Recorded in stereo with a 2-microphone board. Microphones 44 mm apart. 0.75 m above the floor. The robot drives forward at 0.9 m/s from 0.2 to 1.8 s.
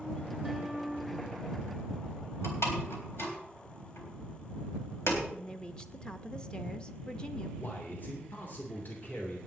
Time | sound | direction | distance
0.4 | a guitar | 5° left (ahead or behind) | 1.8 m
2.4 | a door slam | 75° left (ahead or behind) | 3.5 m
5.3 | a woman speaking | 20° left (ahead or behind) | 0.7 m
7.6 | a man speaking | 45° left (ahead or behind) | 2.5 m